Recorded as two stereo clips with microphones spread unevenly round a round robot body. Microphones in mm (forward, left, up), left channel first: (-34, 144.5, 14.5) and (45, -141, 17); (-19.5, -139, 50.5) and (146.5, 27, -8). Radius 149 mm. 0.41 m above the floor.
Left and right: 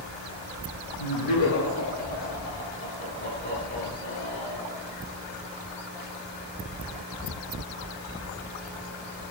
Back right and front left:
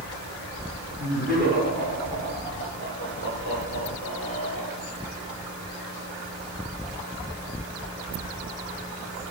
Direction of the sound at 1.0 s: 130° left.